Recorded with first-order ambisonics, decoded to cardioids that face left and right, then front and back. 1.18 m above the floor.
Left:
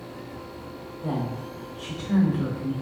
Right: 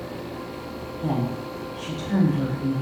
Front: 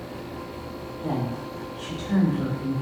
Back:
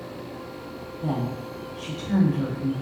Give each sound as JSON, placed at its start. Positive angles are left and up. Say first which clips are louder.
{"t": 1.0, "sound": "a woman speaking", "louder": "right 3 dB, even", "azimuth_deg": -130, "distance_m": 1.5}